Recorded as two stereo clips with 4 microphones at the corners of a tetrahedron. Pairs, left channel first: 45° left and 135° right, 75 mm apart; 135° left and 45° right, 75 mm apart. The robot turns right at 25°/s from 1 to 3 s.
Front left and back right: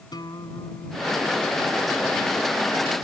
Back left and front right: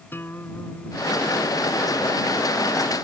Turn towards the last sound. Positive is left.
turn(degrees=125)